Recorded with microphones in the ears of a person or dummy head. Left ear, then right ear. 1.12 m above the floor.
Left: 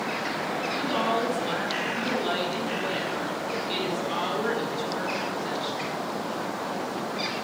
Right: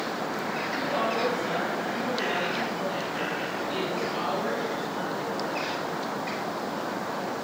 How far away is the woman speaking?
About 6.5 m.